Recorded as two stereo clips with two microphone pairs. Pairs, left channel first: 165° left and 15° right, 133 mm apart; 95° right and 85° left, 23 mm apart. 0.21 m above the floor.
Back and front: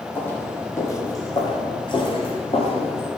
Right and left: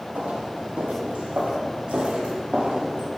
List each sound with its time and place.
0.1 s footsteps: 90° left, 3 m; by 3.1 s 125° left, 3.5 m